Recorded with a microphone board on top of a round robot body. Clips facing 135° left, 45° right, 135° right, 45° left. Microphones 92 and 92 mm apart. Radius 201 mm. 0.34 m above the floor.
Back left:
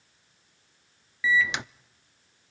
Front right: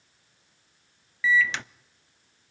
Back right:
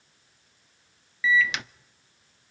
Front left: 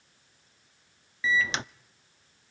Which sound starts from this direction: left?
A microwave, at 1.2 s.